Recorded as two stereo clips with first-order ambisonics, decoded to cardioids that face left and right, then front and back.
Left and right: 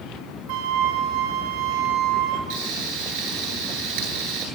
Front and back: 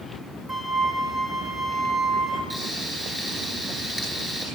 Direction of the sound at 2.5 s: 95° right.